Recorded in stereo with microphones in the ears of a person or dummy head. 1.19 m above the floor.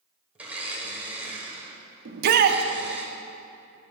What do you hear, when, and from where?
0.3 s a blender: 10° right (ahead or behind), 0.8 m
2.0 s a shout: 50° right (ahead or behind), 0.7 m